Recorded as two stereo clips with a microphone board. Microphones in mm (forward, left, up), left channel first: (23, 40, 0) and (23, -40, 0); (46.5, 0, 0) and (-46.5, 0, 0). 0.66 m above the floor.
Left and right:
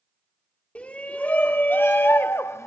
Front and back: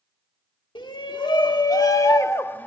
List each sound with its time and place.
0.8 s a shout: 20° left, 1.4 m; by 2.7 s 65° left, 0.8 m